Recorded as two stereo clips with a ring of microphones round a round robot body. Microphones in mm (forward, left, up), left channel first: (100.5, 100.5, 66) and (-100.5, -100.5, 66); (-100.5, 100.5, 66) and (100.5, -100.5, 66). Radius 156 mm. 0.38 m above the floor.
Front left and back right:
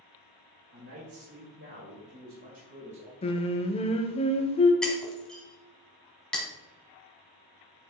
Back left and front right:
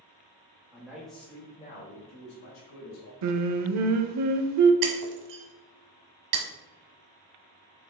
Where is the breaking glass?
40° right, 1.3 m.